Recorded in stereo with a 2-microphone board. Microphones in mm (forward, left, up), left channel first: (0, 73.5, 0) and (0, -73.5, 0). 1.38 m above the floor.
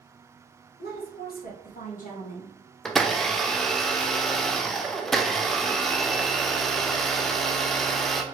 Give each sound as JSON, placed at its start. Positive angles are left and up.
{"t": 0.8, "sound": "a woman speaking", "side_deg": 75, "distance_m": 1.8}
{"t": 2.9, "sound": "a blender", "side_deg": 0, "distance_m": 0.5}